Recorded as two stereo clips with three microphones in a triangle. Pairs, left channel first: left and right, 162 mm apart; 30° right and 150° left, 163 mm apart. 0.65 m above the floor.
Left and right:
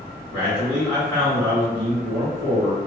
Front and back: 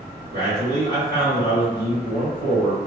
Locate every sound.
0.3 s a man speaking: 140° right, 1.7 m